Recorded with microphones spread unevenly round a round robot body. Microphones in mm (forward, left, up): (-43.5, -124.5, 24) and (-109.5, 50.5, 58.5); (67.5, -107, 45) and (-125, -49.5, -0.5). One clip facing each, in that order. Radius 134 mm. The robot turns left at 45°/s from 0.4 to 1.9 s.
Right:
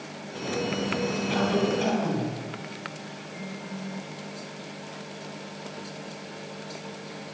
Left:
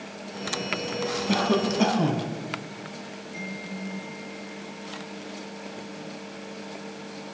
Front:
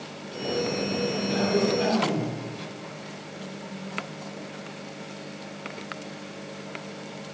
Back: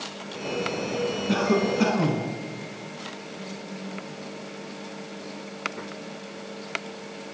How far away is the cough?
About 5 m.